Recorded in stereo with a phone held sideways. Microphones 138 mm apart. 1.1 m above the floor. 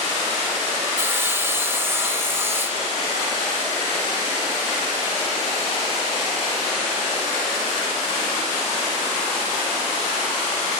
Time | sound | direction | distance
1.0 | sawing | 15° right (ahead or behind) | 0.7 m